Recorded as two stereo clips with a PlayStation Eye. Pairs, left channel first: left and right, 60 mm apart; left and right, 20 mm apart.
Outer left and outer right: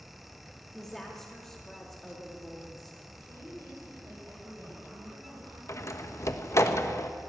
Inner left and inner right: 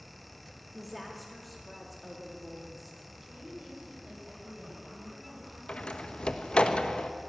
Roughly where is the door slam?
Left.